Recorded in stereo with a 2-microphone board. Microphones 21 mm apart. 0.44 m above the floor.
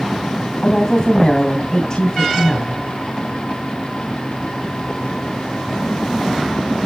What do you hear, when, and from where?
0.6 s a woman speaking: 35° left (ahead or behind), 3 m